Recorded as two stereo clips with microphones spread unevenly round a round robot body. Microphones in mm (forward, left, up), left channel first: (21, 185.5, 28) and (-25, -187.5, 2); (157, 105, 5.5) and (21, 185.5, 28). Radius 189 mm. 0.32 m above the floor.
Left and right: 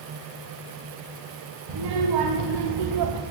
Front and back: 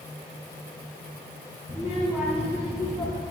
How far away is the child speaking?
About 2 m.